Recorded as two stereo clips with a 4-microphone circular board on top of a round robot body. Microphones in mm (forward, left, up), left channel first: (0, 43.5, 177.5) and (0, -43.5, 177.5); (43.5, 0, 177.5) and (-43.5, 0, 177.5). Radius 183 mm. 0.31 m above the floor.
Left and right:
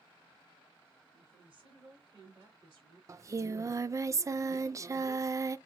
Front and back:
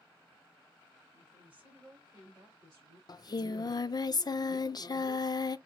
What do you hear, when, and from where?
1.1 s a woman speaking: 100° right, 4 m; by 3.0 s 125° right, 5.5 m
3.1 s singing: 40° right, 0.5 m